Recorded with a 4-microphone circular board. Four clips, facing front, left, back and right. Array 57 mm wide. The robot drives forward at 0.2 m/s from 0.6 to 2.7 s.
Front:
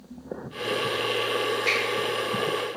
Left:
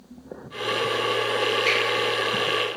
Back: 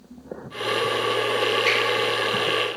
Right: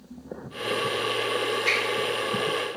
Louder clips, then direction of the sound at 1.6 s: Left 1 dB, back 2 dB; 165° left.